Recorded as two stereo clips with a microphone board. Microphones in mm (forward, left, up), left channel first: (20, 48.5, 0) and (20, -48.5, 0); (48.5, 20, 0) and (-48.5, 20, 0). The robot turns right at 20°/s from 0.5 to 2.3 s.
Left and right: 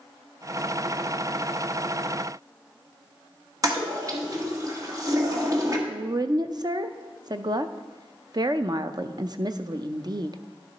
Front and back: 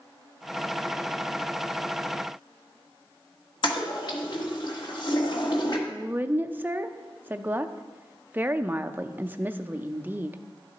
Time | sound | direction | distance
3.6 | a toilet flushing | 35° right | 1.4 m
5.9 | a woman speaking | 115° right | 0.5 m